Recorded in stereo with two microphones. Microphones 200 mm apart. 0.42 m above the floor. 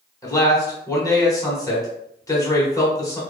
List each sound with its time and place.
0.2 s a man speaking: 15° left (ahead or behind), 1.0 m